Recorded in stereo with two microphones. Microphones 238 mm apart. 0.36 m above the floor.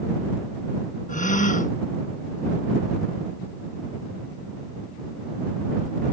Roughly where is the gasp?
Left.